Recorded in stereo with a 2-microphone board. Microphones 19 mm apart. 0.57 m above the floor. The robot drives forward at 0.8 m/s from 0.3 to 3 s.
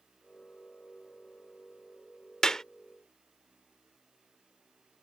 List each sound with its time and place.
2.4 s a clap: 30° left (ahead or behind)